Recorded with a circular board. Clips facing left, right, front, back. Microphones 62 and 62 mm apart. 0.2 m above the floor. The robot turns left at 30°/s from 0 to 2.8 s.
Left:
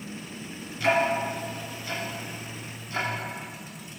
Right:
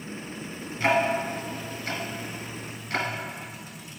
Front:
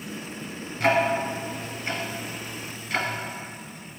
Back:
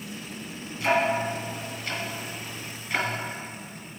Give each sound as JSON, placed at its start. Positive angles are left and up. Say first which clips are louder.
{"t": 0.8, "sound": "ticking", "louder": "even, front 2 dB", "azimuth_deg": -25, "distance_m": 1.3}